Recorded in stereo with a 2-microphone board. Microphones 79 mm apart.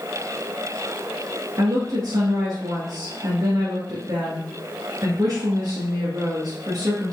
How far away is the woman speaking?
About 1.7 m.